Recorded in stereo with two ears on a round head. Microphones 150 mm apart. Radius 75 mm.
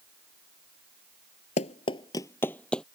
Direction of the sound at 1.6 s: 40° left (ahead or behind).